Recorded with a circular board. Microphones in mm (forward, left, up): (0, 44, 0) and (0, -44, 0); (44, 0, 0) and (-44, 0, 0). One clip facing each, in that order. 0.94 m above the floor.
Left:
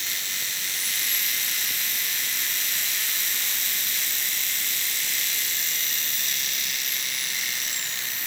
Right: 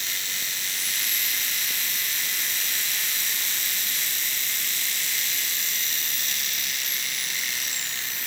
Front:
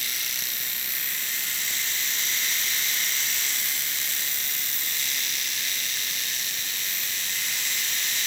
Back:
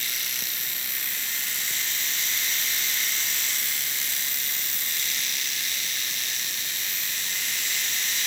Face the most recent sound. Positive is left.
No sound to turn to.